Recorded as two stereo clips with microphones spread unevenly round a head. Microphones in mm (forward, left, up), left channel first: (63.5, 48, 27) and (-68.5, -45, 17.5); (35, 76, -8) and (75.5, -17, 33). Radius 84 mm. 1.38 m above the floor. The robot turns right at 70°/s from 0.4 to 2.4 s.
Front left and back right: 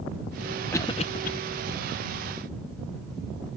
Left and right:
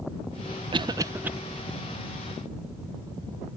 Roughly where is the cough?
Ahead right.